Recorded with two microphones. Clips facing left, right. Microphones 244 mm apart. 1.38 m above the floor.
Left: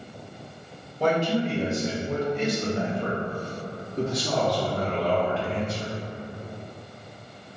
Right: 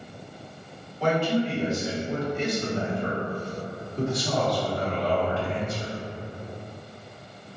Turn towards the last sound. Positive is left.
turn(degrees=75)  # may be behind; listen again after turning